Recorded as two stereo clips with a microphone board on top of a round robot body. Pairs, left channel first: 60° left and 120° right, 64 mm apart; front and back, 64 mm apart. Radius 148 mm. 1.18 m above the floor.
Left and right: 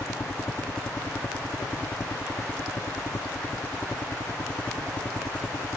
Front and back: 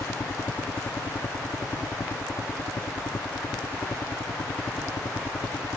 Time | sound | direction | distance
0.0 | a helicopter | 20° left | ?